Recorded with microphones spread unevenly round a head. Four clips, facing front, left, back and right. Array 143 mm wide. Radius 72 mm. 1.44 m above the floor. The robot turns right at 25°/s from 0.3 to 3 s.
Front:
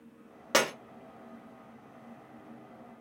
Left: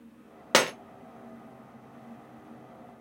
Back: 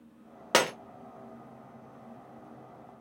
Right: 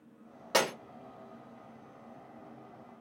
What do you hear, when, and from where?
0.5 s breaking glass: 105° left, 0.7 m; by 0.7 s 110° left, 0.7 m